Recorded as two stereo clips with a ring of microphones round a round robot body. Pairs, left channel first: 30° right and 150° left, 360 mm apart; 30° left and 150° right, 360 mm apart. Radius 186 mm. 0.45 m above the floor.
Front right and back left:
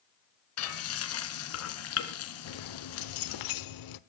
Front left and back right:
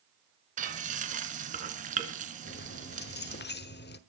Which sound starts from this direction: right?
Frying, at 0.6 s.